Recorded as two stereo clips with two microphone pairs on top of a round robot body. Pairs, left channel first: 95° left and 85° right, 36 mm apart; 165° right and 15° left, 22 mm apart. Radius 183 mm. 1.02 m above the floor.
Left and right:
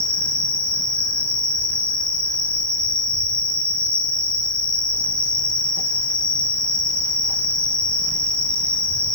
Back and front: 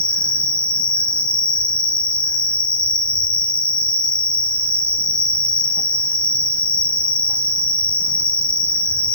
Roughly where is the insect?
Behind.